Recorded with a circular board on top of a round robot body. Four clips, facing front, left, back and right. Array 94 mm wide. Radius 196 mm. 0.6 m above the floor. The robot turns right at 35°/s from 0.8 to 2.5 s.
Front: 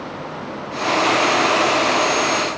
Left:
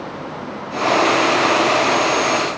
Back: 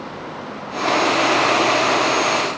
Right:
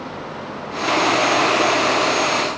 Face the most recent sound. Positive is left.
No sound to turn to.